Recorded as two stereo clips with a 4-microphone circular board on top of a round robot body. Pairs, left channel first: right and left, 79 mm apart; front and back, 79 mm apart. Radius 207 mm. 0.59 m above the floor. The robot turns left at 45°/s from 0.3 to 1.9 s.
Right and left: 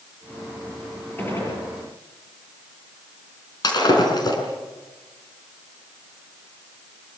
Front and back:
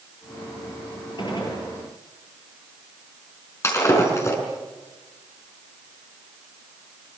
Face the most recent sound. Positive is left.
turn(degrees=-55)